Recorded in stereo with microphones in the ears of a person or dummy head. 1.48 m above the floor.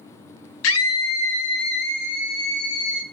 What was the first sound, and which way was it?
A scream, 75° left (ahead or behind).